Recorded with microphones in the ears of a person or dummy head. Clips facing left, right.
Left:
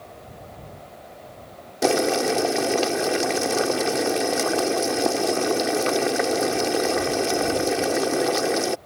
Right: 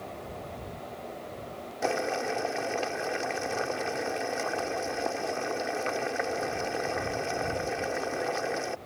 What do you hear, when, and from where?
1.8 s boiling: 55° left (ahead or behind)